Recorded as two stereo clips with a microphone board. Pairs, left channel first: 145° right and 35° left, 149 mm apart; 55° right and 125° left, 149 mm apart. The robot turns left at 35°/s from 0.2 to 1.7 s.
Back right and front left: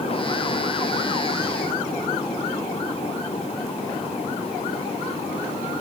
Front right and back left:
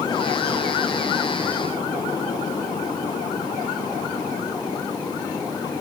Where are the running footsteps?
I don't hear running footsteps.